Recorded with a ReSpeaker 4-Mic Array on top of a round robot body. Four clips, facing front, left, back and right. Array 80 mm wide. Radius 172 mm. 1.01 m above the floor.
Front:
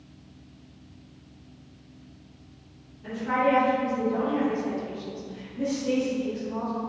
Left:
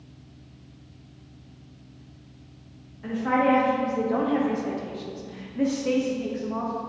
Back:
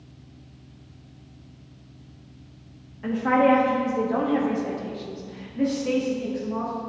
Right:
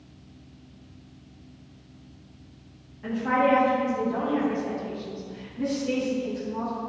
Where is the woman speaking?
Straight behind, 2 m; by 6.8 s 100° left, 3.5 m.